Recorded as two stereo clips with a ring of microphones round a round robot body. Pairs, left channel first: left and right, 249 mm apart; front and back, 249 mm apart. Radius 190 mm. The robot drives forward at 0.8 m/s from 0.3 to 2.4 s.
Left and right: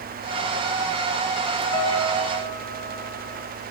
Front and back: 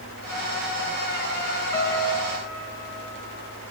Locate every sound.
1.7 s a piano: 15° left, 8.5 m; by 3.4 s 20° left, 8 m